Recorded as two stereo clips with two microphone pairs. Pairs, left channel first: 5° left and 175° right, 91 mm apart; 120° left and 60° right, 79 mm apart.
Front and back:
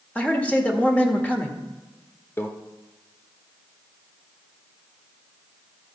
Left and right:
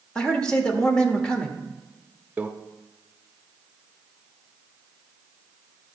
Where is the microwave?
15° right, 0.7 m.